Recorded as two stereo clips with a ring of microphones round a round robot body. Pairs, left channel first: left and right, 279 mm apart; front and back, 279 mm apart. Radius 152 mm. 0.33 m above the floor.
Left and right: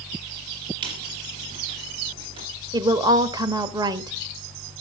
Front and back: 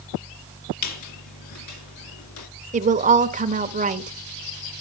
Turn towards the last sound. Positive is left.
turn(degrees=-150)